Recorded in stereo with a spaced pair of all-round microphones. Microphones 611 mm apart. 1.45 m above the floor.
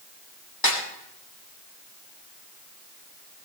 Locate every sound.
0.6 s a snare drum: 35° left (ahead or behind), 3 m